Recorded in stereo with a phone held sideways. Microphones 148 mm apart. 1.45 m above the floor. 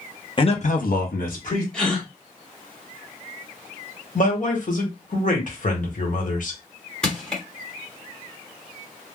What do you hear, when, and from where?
0.4 s a man speaking: 35° left (ahead or behind), 0.7 m; by 1.6 s 55° left (ahead or behind), 1.0 m
1.7 s a gasp: 5° left (ahead or behind), 1.0 m
4.2 s a man speaking: 60° left (ahead or behind), 1.1 m
7.0 s crushing: 5° left (ahead or behind), 1.3 m